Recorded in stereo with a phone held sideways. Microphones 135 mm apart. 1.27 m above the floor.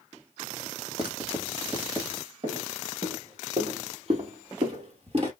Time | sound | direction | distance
1.0 | writing | 40° right (ahead or behind) | 1.3 m
2.4 | footsteps | 65° right (ahead or behind) | 3 m